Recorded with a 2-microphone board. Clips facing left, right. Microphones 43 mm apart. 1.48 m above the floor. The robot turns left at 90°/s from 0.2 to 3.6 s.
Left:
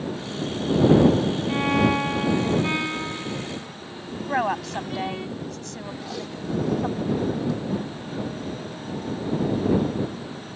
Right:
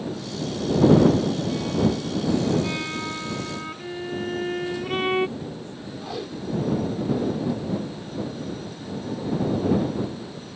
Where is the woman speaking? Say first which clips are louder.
Left 6 dB; 90° left.